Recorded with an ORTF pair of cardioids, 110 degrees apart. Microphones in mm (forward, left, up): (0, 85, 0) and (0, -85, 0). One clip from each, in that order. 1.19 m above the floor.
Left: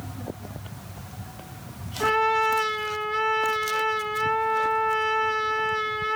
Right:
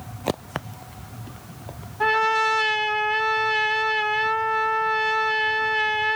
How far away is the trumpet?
About 1.8 m.